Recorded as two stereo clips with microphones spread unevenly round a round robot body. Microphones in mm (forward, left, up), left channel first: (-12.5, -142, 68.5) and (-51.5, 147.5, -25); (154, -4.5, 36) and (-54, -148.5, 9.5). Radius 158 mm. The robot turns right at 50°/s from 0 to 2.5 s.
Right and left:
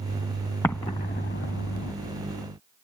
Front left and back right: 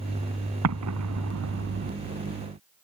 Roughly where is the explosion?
Behind.